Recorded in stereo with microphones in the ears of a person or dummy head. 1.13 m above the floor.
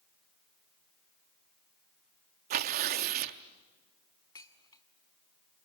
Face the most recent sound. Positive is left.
turn(degrees=20)  # may be behind; listen again after turning